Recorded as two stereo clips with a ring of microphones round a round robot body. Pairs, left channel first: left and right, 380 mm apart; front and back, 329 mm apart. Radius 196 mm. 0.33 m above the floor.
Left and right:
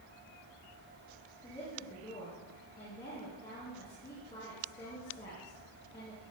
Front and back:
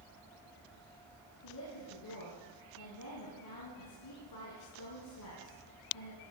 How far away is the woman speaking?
About 4.5 m.